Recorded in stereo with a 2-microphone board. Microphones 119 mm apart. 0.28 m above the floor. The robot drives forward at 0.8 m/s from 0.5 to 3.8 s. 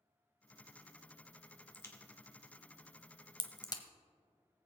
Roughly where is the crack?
Left.